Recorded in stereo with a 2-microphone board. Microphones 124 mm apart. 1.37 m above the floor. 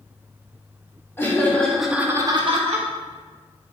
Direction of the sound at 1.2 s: 20° left (ahead or behind).